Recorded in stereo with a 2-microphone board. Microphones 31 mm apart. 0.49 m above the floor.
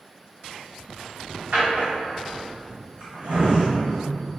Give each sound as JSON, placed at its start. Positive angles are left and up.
{"t": 1.5, "sound": "a drawer", "side_deg": -60, "distance_m": 1.4}